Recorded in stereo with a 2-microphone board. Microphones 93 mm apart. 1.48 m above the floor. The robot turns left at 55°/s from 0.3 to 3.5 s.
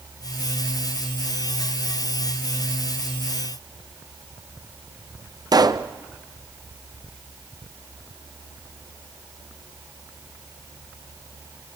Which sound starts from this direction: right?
A pop, at 5.5 s.